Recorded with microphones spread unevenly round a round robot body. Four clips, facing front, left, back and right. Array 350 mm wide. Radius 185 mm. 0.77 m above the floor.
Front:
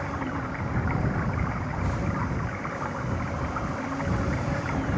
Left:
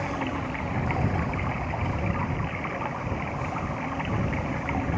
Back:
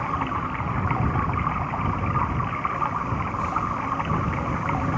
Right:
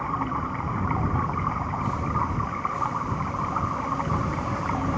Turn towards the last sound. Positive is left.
turn(degrees=160)